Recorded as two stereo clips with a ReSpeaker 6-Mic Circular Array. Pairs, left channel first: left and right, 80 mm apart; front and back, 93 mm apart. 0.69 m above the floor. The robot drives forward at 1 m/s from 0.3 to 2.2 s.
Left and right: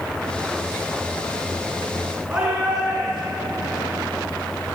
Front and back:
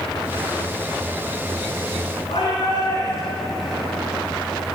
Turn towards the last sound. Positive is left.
turn(degrees=-15)